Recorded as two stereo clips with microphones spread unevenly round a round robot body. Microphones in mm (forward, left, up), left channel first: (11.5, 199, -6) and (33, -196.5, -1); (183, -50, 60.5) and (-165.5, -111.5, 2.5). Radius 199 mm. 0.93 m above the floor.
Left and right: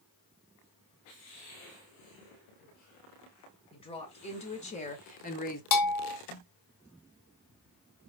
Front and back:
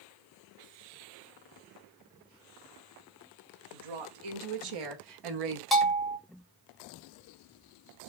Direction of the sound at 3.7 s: 170° left.